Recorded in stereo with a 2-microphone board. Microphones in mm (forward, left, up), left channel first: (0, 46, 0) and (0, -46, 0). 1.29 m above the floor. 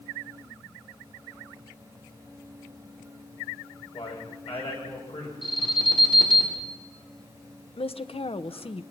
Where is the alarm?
55° left (ahead or behind), 5.5 m.